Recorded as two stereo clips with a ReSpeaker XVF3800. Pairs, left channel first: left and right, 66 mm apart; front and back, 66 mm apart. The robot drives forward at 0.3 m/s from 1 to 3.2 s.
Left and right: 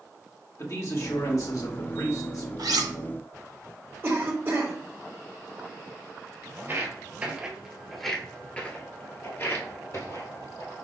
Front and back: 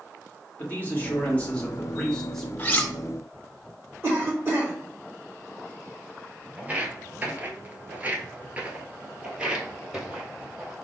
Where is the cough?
140° right, 1.2 m.